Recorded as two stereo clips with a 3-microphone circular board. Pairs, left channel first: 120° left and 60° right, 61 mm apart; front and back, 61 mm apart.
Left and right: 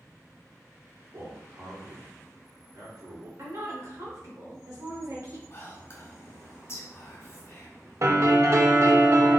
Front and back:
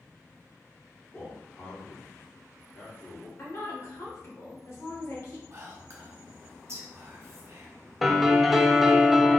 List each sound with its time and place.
1.1 s a man speaking: 55° right, 2 m
3.4 s a woman speaking: 35° right, 1.9 m
5.5 s whispering: 155° left, 1.7 m
8.0 s a piano: 90° right, 0.6 m